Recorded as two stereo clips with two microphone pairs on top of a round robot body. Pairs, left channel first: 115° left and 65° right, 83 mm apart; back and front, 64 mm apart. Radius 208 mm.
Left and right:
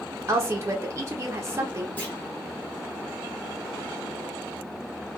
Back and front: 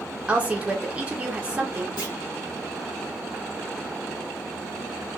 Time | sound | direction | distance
0.3 | a woman speaking | 45° right | 0.9 m
2.0 | a clunk | 175° right | 0.7 m